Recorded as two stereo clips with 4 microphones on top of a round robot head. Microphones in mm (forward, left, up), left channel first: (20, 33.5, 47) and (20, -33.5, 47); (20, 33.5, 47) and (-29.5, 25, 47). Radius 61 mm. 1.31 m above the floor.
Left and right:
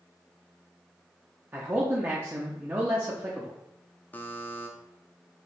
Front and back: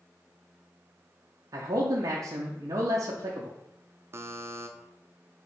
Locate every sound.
1.5 s a man speaking: 155° right, 0.6 m
4.1 s a buzzer: 155° left, 0.5 m